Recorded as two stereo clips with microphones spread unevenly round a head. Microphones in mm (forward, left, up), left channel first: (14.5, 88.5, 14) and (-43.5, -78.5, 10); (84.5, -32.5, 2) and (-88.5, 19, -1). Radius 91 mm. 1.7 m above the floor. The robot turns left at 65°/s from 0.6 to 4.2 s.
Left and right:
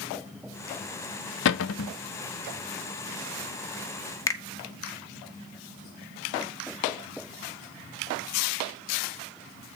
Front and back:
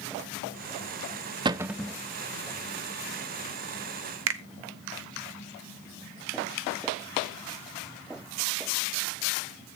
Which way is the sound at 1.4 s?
95° left.